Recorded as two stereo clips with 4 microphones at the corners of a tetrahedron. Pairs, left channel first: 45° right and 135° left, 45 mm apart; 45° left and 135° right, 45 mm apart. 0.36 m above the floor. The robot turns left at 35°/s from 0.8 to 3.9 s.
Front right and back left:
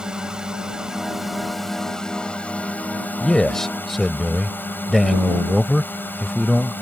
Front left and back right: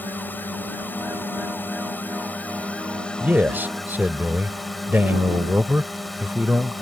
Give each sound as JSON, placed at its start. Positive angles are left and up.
{"t": 0.0, "sound": "a drone", "azimuth_deg": 65}
{"t": 3.2, "sound": "a man speaking", "azimuth_deg": -110}